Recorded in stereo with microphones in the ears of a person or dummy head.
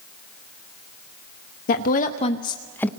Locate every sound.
1.7 s a woman speaking: 55° left (ahead or behind), 0.8 m; by 2.9 s 10° left (ahead or behind), 0.6 m